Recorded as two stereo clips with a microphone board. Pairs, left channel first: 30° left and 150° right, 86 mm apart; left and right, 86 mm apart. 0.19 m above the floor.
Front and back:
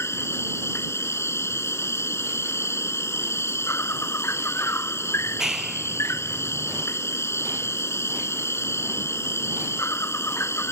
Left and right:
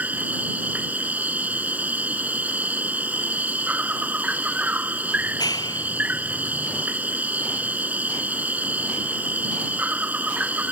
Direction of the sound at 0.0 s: 20° right.